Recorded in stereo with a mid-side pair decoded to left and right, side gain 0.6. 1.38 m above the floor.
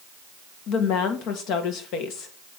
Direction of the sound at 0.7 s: 70° left.